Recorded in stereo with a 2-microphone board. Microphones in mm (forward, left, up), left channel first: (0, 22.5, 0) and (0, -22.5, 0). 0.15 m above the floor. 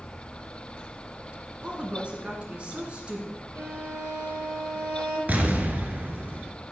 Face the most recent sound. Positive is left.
turn(degrees=-40)  # may be behind; listen again after turning